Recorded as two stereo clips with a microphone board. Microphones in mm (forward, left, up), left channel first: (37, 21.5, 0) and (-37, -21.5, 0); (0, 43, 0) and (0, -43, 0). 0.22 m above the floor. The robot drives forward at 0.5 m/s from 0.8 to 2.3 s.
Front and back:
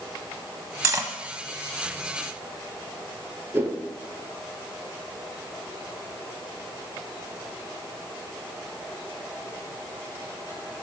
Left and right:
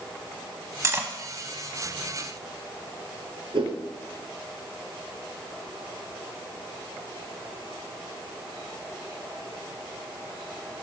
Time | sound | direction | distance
0.8 | cutlery clinking | 120° right | 0.6 m
3.5 | a whoosh | 85° right | 1.6 m